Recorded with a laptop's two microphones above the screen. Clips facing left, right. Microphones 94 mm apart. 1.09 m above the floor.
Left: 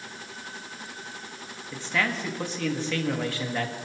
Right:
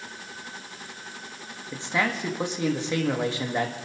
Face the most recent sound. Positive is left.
turn(degrees=-20)  # may be behind; listen again after turning